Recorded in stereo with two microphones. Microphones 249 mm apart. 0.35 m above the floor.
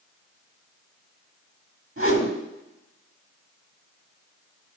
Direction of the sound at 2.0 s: 60° right (ahead or behind).